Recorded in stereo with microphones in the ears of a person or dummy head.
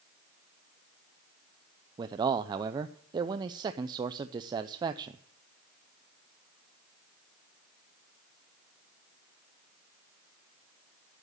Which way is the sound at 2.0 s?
20° right (ahead or behind).